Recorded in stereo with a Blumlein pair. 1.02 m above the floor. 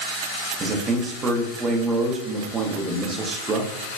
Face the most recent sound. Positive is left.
turn(degrees=-20)